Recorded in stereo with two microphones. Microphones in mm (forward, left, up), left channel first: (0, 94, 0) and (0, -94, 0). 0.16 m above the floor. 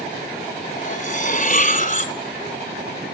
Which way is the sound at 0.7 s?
45° left (ahead or behind).